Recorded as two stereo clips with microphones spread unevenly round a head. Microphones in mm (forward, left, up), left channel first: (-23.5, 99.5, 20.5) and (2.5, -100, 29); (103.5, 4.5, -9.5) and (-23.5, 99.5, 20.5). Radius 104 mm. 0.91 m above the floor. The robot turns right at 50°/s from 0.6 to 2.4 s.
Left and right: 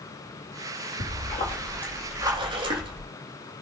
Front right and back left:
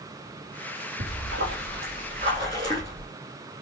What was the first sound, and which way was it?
A splash, 140° left.